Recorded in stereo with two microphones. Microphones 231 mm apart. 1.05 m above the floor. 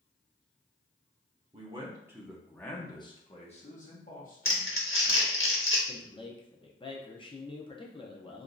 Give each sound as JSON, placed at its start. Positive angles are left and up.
{"t": 1.5, "sound": "a man speaking", "side_deg": -30, "distance_m": 0.8}
{"t": 4.5, "sound": "crumpling", "side_deg": 65, "distance_m": 0.8}
{"t": 5.9, "sound": "a man speaking", "side_deg": 20, "distance_m": 0.5}